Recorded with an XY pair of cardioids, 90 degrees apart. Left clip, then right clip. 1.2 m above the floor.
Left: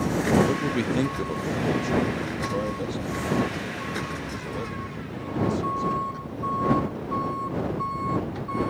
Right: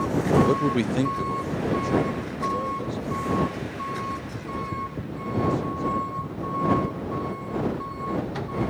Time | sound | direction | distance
0.5 | a man speaking | 40° right | ?